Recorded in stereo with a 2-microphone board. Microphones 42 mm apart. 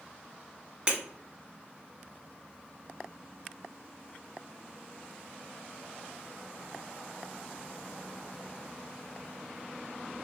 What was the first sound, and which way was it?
Breaking glass, 25° right (ahead or behind).